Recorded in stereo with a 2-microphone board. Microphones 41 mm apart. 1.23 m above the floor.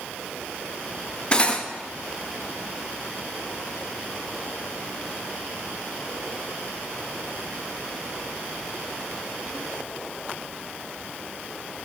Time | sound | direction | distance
1.3 | cutlery clinking | 25° left (ahead or behind) | 0.7 m